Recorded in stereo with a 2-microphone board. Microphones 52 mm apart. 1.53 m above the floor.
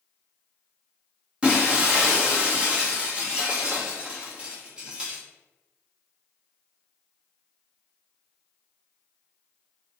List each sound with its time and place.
1.4 s breaking glass: 20° right (ahead or behind), 0.9 m